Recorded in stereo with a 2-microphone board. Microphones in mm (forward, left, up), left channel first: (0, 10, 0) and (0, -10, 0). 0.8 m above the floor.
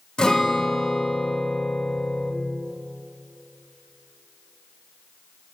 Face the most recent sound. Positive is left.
turn(degrees=50)  # may be behind; listen again after turning